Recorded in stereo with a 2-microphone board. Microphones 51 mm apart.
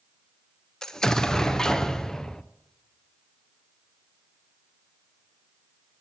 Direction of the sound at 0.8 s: 10° left (ahead or behind).